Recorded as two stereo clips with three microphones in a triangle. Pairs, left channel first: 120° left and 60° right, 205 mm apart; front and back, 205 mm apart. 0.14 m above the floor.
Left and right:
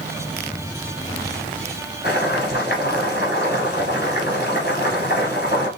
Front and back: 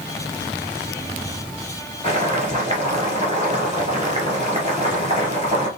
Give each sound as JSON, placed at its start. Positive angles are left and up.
{"t": 2.0, "sound": "boiling", "azimuth_deg": 135, "distance_m": 1.7}